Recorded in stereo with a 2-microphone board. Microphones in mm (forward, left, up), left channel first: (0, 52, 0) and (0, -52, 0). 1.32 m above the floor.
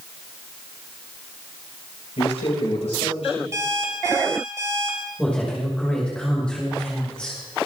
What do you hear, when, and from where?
2.2 s a man speaking: 90° left, 6.5 m
3.5 s an alarm clock: 30° right (ahead or behind), 3.5 m
5.2 s a woman speaking: 10° left (ahead or behind), 6 m